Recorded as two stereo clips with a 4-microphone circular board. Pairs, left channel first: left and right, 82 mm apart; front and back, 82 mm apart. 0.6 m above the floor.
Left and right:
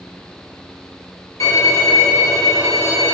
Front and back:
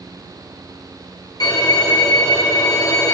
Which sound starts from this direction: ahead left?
A violin, at 1.4 s.